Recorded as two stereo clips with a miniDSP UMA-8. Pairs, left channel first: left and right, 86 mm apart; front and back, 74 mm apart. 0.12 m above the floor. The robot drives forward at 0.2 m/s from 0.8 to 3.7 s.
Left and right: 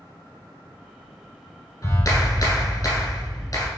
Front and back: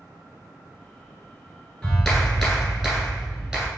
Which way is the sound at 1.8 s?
80° left.